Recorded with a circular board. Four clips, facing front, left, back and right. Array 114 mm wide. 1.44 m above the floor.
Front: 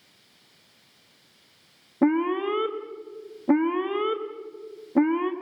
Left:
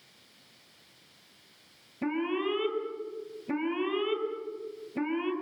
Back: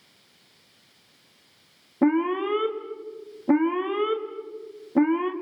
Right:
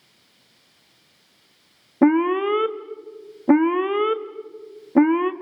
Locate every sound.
2.0 s an alarm: 90° right, 1.6 m